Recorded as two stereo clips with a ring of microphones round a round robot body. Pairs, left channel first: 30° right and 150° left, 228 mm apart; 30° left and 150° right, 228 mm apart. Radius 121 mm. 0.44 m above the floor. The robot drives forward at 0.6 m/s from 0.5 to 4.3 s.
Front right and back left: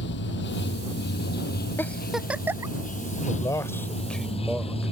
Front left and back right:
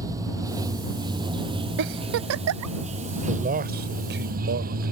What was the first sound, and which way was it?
Running water, 75° right.